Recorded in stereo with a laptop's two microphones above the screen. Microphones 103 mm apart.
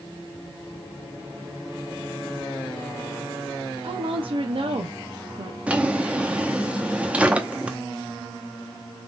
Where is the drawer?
10° right (ahead or behind), 0.8 m.